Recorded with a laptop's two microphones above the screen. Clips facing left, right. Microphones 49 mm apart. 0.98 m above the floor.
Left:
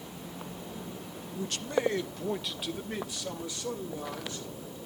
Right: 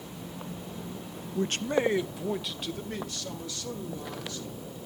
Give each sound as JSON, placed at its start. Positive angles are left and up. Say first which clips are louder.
{"t": 1.4, "sound": "a man speaking", "louder": "right 4 dB", "side_deg": -55, "distance_m": 0.5}